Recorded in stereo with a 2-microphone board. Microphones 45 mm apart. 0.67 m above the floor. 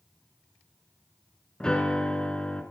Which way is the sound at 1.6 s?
20° left (ahead or behind).